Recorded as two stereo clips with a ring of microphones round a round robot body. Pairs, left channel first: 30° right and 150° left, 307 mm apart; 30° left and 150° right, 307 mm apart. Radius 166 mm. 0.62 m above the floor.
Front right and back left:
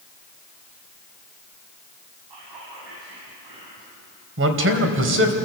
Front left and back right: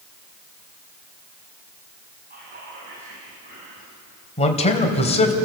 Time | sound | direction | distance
2.3 | whispering | 145° left | 5 m
4.4 | a man speaking | 100° left | 3 m